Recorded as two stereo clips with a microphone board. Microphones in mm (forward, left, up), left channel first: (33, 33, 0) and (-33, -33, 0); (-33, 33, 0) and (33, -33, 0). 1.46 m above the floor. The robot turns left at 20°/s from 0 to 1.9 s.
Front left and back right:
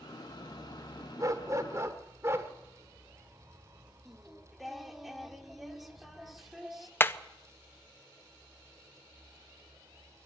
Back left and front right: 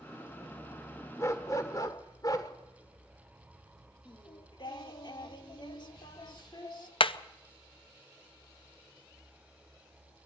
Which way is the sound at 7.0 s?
110° left.